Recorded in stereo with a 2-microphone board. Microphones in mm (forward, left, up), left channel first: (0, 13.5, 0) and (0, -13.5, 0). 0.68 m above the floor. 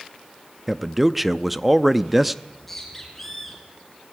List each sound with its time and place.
0.7 s a man speaking: 5° right (ahead or behind), 0.5 m
2.5 s a bird: 10° left (ahead or behind), 6.5 m